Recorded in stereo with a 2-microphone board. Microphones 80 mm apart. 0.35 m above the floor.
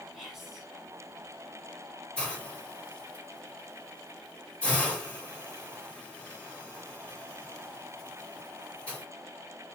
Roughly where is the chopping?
No chopping in this recording.